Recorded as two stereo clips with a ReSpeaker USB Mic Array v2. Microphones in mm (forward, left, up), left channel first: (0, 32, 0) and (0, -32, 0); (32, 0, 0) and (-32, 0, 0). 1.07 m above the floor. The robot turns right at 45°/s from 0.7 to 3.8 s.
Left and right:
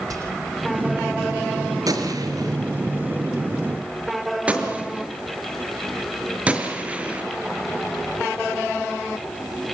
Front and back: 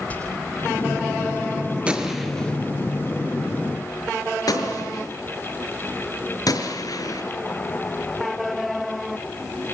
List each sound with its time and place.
0.1 s whispering: 65° right, 3.5 m
1.9 s a gunshot: 105° right, 5 m; by 7.2 s 20° right, 5 m